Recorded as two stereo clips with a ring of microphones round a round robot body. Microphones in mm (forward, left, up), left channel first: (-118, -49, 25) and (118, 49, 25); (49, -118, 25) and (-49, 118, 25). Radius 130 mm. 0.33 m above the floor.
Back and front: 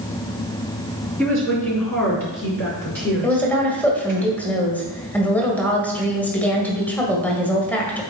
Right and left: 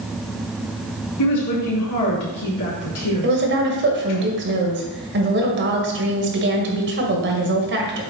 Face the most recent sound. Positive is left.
turn(degrees=120)